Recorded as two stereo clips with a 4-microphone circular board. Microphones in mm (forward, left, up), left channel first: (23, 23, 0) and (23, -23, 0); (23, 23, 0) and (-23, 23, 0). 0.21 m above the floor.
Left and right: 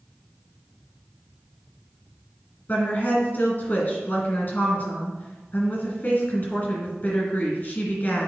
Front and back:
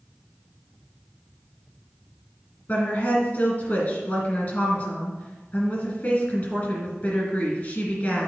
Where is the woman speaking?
40° left, 2.5 m.